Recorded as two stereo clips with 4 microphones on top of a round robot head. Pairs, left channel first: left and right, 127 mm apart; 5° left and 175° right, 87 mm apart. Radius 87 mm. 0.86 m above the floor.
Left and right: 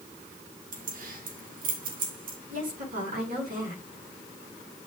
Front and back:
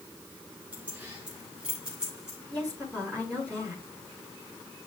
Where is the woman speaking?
80° right, 7.5 m.